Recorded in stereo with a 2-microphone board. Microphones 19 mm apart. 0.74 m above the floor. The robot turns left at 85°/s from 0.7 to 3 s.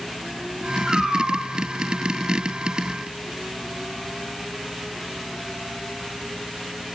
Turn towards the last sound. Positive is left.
turn(degrees=160)